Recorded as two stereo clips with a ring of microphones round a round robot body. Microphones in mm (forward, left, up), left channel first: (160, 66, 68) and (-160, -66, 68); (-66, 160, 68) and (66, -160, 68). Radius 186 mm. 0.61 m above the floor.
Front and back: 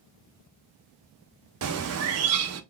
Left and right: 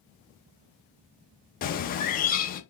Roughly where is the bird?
Behind.